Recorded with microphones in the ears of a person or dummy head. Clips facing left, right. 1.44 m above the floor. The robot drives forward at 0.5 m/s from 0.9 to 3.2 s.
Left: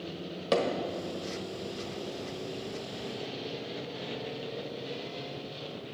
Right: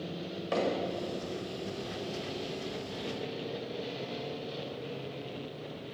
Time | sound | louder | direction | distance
0.5 | hammering | left 4 dB | 60° left (ahead or behind) | 1.4 m